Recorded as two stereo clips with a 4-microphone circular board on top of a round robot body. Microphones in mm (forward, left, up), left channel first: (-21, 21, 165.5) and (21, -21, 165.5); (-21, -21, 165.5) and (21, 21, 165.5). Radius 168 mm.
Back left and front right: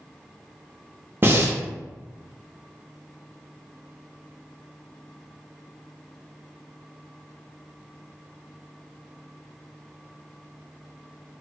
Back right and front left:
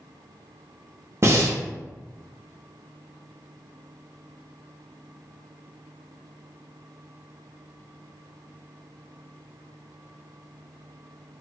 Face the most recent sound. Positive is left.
turn(degrees=5)